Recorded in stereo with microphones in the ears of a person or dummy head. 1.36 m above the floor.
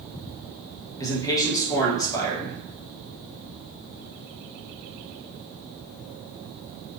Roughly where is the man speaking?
Centre.